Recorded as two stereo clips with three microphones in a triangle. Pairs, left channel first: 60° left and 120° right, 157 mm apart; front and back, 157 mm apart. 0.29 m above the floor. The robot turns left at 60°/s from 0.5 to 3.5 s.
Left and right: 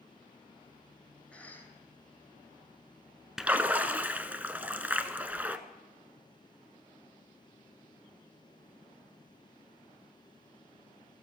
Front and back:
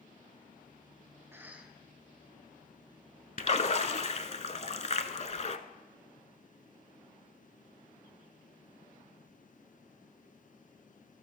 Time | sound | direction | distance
1.3 | a cough | 130° left | 1.3 m
3.4 | a splash | 35° right | 0.6 m